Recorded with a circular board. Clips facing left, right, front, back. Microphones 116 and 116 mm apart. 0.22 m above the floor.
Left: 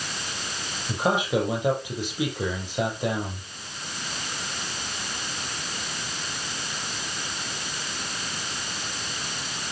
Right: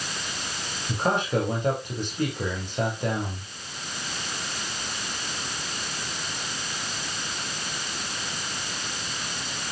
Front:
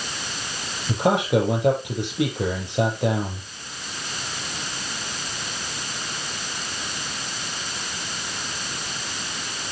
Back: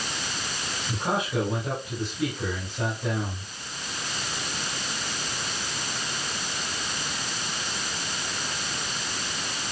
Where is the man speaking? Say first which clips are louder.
Left 1 dB, front 8 dB; 5° left, 8 m.